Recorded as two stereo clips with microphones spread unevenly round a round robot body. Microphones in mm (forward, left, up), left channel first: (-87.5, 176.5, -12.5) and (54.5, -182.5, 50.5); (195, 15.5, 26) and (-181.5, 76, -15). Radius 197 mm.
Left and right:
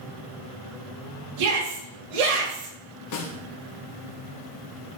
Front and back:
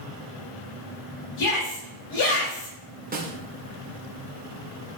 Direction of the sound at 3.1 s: 110° left.